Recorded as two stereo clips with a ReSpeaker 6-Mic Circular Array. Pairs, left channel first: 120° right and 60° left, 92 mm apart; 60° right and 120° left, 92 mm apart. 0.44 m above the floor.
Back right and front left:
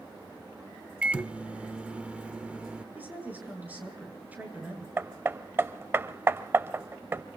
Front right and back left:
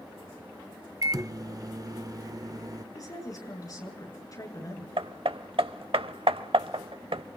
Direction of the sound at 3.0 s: 10° right.